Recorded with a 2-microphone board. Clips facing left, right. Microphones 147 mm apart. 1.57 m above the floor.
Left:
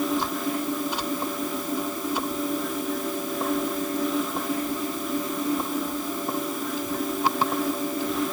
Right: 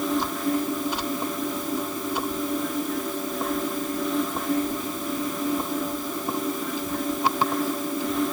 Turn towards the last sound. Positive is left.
No sound to turn to.